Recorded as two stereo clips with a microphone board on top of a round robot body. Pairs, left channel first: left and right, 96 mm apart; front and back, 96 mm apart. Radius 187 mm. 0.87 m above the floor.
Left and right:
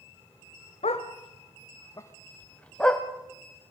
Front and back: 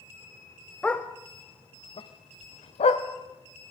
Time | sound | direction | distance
0.8 | a dog barking | 80° left | 1.1 m